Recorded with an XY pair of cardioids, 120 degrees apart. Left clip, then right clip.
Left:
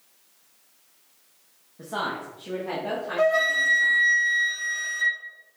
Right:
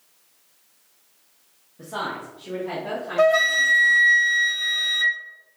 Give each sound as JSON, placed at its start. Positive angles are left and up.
{"t": 1.8, "sound": "a woman speaking", "azimuth_deg": 5, "distance_m": 1.2}
{"t": 3.2, "sound": "a flute", "azimuth_deg": -40, "distance_m": 1.0}